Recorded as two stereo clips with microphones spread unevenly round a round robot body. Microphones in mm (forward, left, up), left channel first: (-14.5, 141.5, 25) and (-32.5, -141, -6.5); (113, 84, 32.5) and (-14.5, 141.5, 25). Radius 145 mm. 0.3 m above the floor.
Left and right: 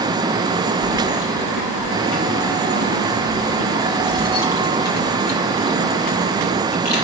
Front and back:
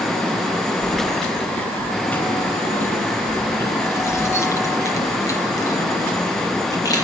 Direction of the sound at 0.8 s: 65° left.